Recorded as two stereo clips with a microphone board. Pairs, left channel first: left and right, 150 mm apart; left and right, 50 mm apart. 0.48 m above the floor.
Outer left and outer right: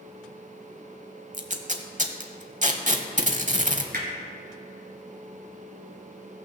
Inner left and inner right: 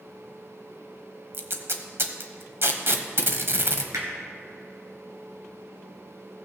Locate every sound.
1.3 s tape being pulled: 55° right (ahead or behind), 0.9 m
3.9 s hammering: 75° right (ahead or behind), 2.5 m